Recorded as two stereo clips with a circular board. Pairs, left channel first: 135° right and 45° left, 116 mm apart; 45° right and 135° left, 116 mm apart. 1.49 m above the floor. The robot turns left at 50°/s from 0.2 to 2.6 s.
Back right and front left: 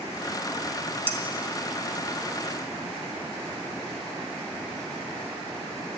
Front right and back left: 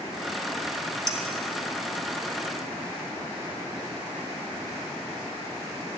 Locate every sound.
1.1 s dishes clattering: 75° left, 1.5 m; by 1.2 s 70° left, 1.5 m